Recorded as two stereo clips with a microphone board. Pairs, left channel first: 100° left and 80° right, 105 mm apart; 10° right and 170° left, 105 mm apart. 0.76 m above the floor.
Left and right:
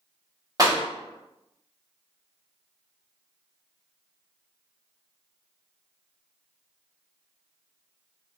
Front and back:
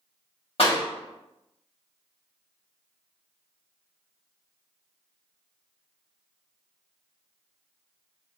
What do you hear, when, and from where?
0.6 s a clap: 30° right, 1.6 m